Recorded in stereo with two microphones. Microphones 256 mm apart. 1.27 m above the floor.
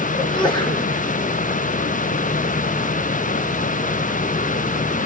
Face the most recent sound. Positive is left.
turn(degrees=20)  # may be behind; listen again after turning